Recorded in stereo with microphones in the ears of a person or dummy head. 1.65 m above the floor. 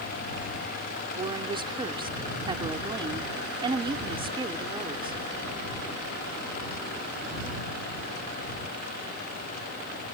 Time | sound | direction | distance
1.2 | a woman speaking | 25° right (ahead or behind) | ?